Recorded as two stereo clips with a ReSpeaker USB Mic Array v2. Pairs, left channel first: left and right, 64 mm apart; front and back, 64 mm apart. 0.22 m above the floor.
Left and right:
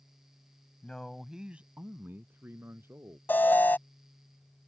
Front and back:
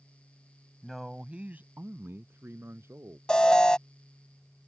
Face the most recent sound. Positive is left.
turn(degrees=65)